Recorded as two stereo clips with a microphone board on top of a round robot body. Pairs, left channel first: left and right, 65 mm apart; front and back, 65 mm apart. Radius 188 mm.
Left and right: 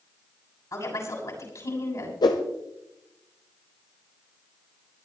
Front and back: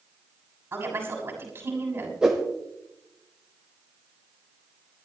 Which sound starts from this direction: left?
A whoosh, at 2.2 s.